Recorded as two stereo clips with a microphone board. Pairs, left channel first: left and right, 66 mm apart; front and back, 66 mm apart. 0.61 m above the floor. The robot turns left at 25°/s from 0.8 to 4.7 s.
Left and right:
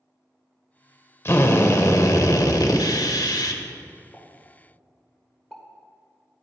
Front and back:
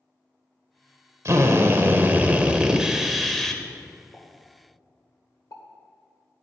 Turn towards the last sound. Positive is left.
turn(degrees=10)